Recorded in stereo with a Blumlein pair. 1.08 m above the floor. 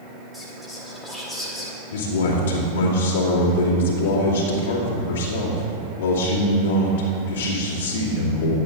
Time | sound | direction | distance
0.3 | whispering | straight ahead | 1.7 m
1.9 | a man speaking | 60° left | 2 m